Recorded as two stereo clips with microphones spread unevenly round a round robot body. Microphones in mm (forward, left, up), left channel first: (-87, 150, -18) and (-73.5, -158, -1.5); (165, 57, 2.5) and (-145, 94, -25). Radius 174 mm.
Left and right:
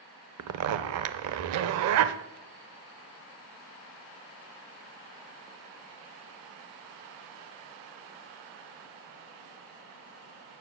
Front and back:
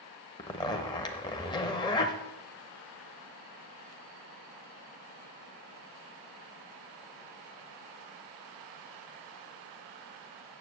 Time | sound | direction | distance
0.4 | a zipper | 85° right | 0.6 m